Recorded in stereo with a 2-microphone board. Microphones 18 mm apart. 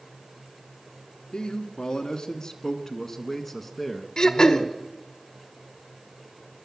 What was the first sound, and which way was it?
A man speaking, 50° left (ahead or behind).